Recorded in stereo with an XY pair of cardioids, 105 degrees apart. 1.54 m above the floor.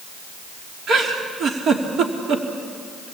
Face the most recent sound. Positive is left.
turn(degrees=-60)